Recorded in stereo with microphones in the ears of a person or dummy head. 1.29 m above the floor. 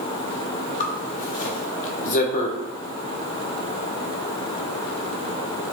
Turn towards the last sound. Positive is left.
turn(degrees=50)  # may be behind; listen again after turning